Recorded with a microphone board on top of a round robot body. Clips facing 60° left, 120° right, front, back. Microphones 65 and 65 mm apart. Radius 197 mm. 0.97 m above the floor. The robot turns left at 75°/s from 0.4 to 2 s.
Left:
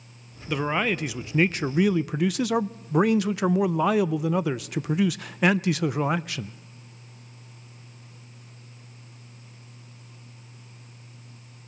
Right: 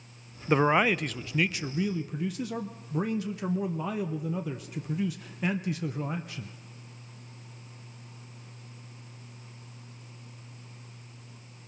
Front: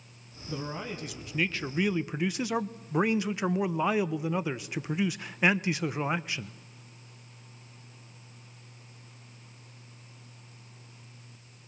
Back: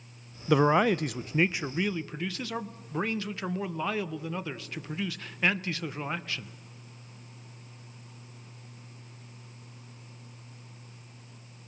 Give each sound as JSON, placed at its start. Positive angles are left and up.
{"t": 0.5, "sound": "a man speaking", "azimuth_deg": -175, "distance_m": 0.5}